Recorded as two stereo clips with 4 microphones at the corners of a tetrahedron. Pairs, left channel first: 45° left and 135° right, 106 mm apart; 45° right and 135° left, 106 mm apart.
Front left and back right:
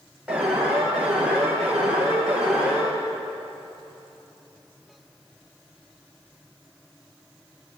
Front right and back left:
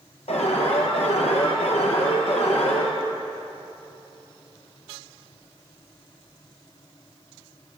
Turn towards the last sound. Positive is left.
turn(degrees=-55)